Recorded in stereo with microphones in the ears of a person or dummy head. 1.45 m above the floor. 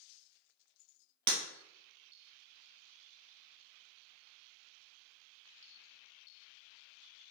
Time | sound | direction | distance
1.3 | breaking glass | 25° right (ahead or behind) | 1.2 m